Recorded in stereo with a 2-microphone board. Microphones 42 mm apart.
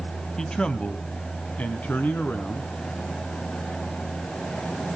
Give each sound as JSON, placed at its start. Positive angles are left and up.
{"t": 0.4, "sound": "a man speaking", "side_deg": 15, "distance_m": 1.0}